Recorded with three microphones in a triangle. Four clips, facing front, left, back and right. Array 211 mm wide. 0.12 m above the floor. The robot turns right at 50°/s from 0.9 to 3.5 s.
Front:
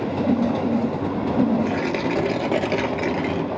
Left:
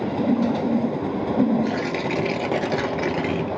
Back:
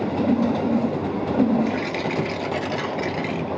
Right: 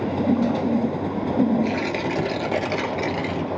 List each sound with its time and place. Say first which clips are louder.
1.6 s tearing paper: even, front 2 dB; 15° right, 0.8 m; by 3.5 s 75° left, 0.8 m